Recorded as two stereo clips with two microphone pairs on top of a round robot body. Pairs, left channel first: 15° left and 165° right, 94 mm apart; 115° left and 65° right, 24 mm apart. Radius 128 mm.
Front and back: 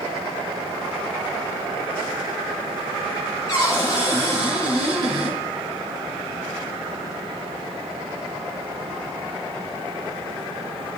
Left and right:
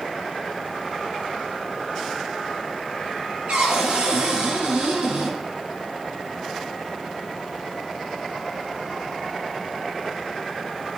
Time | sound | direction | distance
3.5 | a cupboard door | 35° right | 8 m